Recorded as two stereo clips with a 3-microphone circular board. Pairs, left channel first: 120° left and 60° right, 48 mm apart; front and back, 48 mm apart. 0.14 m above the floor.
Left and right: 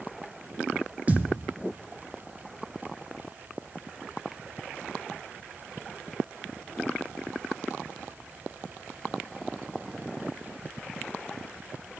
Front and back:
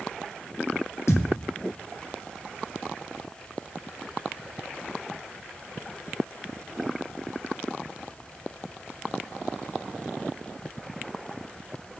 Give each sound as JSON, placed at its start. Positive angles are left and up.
{"t": 1.1, "sound": "a thud", "azimuth_deg": -5, "distance_m": 1.1}